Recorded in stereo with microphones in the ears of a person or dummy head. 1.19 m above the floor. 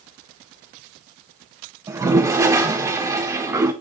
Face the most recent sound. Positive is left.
turn(degrees=-20)  # may be behind; listen again after turning